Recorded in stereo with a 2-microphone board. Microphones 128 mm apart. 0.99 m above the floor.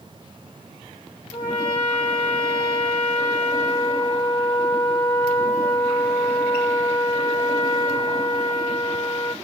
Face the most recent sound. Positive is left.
turn(degrees=30)  # may be behind; listen again after turning